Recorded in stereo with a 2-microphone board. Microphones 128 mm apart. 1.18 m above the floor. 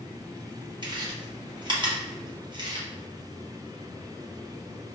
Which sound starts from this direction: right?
Chewing, at 0.8 s.